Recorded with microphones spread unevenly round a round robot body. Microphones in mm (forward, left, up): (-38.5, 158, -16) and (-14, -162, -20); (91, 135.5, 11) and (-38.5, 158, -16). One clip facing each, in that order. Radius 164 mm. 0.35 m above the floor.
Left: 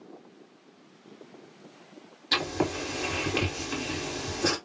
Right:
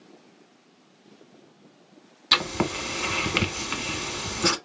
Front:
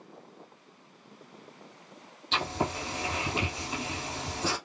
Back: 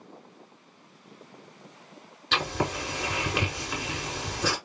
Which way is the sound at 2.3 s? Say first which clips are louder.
Even, back 2 dB; 145° right.